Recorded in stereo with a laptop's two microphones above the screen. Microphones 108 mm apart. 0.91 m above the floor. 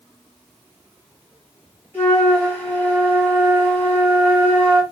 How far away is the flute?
About 1.6 m.